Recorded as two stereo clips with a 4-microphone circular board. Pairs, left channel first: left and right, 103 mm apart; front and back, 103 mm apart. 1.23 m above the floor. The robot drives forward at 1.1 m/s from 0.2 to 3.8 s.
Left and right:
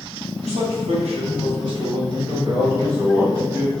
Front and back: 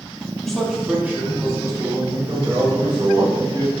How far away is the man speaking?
About 2 m.